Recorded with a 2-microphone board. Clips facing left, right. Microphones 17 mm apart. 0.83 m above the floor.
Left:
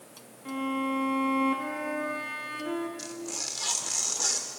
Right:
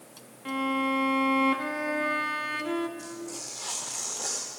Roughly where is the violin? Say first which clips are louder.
Right 3 dB; right.